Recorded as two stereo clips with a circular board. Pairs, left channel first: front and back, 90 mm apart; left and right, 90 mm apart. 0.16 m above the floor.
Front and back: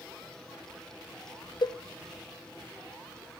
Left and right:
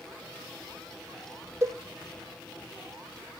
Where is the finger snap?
No finger snap in this recording.